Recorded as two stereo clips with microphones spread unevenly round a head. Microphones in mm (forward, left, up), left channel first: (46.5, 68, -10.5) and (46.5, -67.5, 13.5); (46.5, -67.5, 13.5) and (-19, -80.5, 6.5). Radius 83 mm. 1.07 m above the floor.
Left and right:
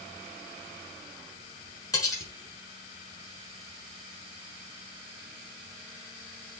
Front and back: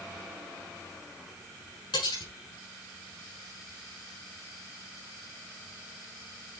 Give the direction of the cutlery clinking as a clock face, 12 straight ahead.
11 o'clock.